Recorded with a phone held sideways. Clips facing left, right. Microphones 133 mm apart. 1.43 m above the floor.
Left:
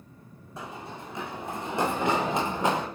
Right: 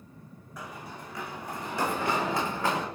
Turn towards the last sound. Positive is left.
turn(degrees=20)  # may be behind; listen again after turning